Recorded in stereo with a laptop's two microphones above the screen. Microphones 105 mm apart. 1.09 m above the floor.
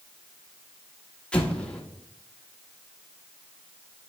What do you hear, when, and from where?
1.3 s an explosion: 10° left (ahead or behind), 0.8 m